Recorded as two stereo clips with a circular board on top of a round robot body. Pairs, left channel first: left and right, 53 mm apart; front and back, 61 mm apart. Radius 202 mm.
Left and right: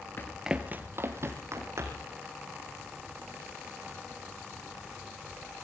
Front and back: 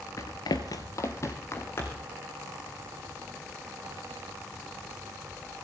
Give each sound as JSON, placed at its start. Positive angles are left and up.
{"t": 0.2, "sound": "running footsteps", "azimuth_deg": 40, "distance_m": 0.5}